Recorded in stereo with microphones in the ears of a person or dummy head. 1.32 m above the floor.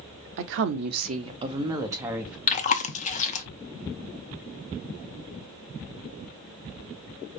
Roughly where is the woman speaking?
Right.